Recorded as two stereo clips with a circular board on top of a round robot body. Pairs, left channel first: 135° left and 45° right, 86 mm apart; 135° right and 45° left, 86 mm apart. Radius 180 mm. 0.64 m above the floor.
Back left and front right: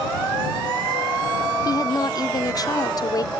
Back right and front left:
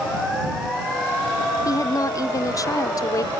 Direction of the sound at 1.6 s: Straight behind.